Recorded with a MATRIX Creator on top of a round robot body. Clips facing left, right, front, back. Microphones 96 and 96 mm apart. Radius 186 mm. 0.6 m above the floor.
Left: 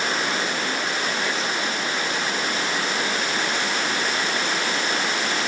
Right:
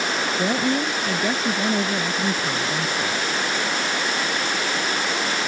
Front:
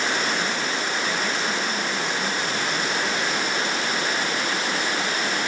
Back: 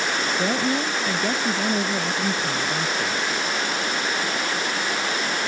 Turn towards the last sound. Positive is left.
turn(degrees=-140)